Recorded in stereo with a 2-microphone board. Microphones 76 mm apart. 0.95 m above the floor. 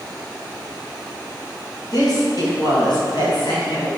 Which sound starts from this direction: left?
A woman speaking, at 1.9 s.